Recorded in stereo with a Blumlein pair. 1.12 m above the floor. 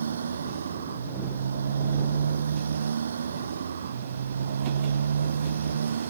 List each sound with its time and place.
0.0 s a motorcycle: 70° right